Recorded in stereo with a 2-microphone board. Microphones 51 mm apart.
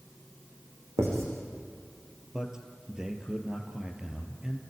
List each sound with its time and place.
1.0 s writing: 65° right (ahead or behind), 7 m
2.3 s a man speaking: 15° right (ahead or behind), 3 m